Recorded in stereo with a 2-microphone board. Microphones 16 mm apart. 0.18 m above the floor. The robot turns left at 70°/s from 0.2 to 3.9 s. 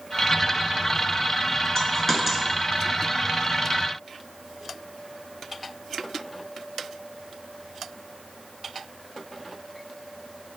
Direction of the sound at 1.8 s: 35° left (ahead or behind).